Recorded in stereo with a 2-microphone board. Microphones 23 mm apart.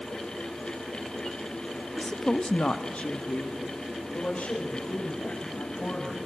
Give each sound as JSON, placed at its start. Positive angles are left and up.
{"t": 2.0, "sound": "a woman speaking", "side_deg": 10, "distance_m": 0.9}